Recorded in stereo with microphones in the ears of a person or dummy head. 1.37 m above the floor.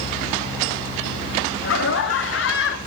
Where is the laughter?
75° left (ahead or behind), 2.5 m.